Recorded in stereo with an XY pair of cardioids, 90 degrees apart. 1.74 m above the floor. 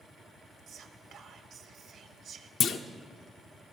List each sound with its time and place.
0.7 s whispering: 65° right, 1.1 m
2.6 s a clunk: 65° left, 0.7 m